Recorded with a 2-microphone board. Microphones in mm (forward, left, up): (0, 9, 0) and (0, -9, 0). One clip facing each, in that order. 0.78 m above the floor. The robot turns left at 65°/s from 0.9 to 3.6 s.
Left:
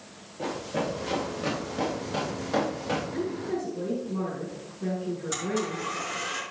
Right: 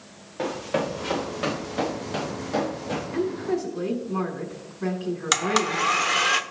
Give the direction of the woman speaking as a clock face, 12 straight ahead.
3 o'clock.